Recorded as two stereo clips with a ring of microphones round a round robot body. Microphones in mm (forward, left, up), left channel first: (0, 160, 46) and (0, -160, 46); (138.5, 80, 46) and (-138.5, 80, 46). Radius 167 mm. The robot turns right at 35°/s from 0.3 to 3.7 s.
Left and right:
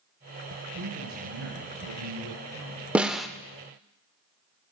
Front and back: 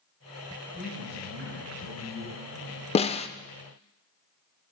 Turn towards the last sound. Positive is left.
turn(degrees=15)